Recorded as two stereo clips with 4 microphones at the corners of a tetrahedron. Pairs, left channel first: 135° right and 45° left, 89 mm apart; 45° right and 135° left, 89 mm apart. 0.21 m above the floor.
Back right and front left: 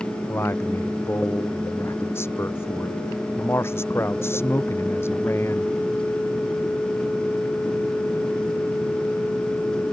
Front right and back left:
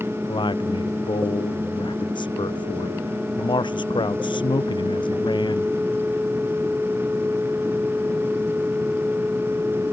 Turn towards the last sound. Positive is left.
turn(degrees=-75)